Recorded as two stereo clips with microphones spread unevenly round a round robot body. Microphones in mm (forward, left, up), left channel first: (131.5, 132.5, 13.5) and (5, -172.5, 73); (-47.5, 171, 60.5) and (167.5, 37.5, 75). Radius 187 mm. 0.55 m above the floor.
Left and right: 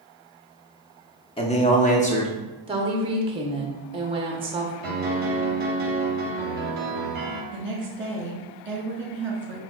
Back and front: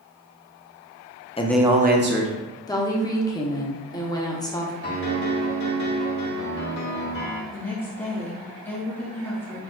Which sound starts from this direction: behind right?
A woman speaking, at 7.5 s.